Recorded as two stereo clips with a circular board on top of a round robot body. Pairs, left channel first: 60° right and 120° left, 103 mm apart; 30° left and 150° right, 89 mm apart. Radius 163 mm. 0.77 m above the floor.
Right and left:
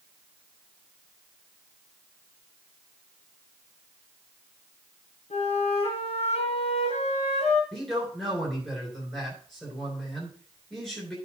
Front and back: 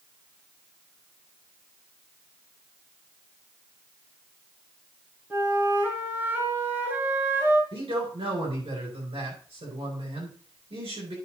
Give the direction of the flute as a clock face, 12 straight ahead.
3 o'clock.